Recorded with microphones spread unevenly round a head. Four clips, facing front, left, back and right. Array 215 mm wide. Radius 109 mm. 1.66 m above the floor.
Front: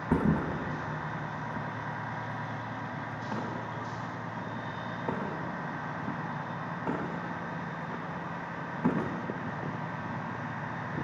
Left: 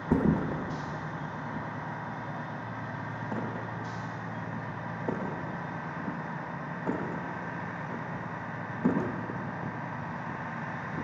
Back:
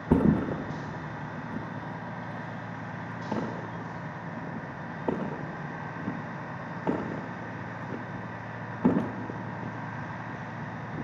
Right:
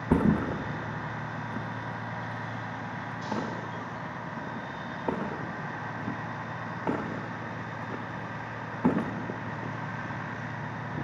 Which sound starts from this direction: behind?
A thud, at 0.1 s.